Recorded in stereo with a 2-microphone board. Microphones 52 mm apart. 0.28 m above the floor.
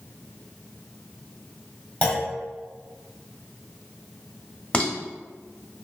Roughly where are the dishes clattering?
Left.